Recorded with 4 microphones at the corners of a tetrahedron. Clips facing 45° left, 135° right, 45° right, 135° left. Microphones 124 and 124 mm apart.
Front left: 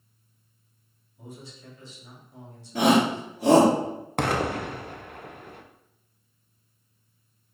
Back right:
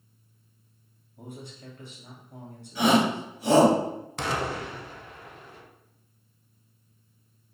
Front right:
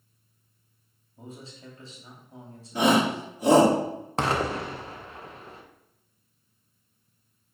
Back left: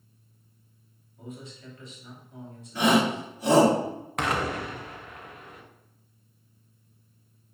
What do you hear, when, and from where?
1.2 s a man speaking: 105° right, 2.5 m
2.8 s a shout: 5° left, 2.5 m
4.2 s an explosion: 15° left, 0.9 m